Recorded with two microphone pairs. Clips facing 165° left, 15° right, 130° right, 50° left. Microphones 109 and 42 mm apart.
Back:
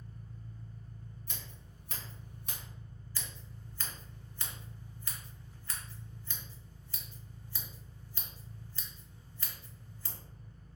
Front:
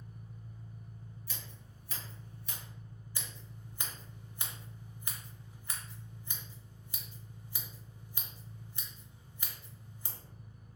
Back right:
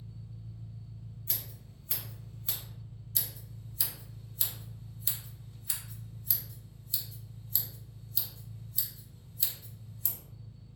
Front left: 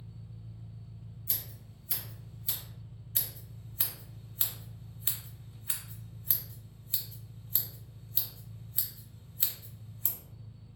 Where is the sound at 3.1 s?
45° left, 0.7 m.